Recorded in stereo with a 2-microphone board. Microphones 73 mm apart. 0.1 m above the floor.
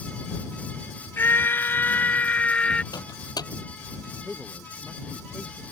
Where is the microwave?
65° left (ahead or behind).